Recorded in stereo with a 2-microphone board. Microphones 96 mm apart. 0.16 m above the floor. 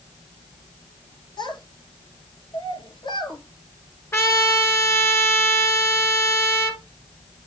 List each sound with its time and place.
1.4 s a child speaking: 55° left (ahead or behind), 1.9 m
4.1 s a trumpet: 30° left (ahead or behind), 1.8 m